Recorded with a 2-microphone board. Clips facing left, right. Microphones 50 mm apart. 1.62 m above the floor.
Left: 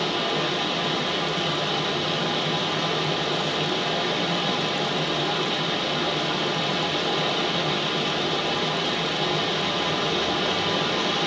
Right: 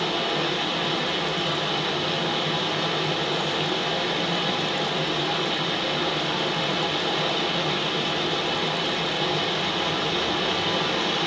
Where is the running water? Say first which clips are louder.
Even; centre (ahead or behind), 0.8 m.